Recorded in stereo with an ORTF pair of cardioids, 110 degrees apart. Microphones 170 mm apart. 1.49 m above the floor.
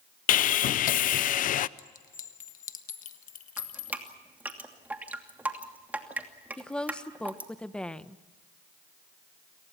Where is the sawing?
55° left, 0.6 m.